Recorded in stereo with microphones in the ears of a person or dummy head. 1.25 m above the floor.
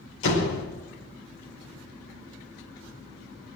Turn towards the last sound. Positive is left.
turn(degrees=75)  # may be behind; listen again after turning